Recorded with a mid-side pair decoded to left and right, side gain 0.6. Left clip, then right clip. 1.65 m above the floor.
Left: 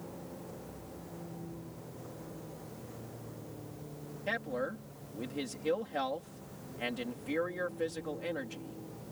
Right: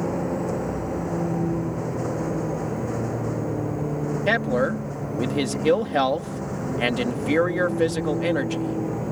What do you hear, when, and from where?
0.0 s a vehicle: 70° right
4.3 s a man speaking: 60° right